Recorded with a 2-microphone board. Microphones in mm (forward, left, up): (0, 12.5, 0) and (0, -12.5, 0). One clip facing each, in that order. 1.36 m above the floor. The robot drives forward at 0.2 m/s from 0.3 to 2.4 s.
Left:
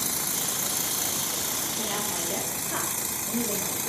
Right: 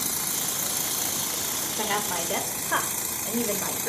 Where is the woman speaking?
45° right (ahead or behind), 0.6 m; by 3.9 s 40° right (ahead or behind), 0.7 m.